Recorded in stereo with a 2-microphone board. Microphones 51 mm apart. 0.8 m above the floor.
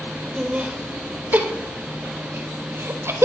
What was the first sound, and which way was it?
Laughter, 25° right (ahead or behind).